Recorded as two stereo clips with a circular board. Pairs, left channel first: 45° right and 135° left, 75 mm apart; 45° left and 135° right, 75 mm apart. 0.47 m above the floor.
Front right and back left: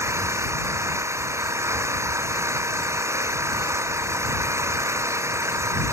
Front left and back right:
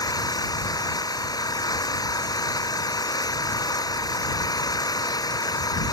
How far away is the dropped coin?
I don't hear a dropped coin.